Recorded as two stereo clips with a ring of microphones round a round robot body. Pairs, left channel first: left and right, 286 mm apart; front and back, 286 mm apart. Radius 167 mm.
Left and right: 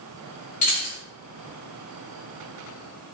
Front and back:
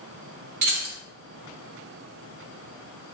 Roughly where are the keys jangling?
Behind left.